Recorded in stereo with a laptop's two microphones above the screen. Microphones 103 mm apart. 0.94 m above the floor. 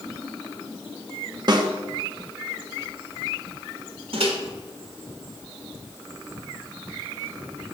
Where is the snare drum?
45° right (ahead or behind), 1.1 m.